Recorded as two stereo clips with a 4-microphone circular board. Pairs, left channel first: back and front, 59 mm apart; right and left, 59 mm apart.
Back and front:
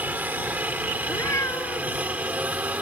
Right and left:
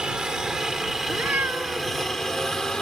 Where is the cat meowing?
150° left.